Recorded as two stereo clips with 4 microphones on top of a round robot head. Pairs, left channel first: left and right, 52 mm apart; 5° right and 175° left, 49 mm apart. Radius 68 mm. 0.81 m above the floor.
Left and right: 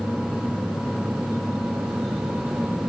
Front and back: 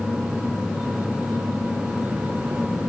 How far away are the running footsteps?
No running footsteps in this recording.